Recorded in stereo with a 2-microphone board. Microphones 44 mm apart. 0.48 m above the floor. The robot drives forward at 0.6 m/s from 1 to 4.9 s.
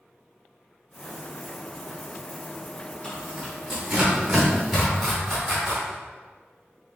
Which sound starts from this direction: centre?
Tearing paper, at 3.0 s.